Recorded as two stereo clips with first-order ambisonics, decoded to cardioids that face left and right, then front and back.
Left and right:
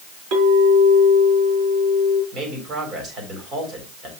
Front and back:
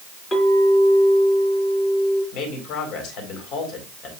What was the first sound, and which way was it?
A clink, 75° right.